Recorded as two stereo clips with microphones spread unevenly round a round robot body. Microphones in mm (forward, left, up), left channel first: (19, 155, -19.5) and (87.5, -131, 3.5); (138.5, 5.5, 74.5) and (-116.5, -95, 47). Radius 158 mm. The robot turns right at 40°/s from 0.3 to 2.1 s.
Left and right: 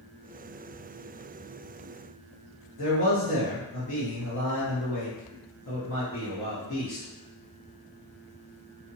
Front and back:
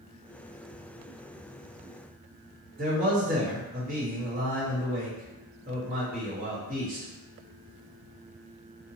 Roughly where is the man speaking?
Behind left.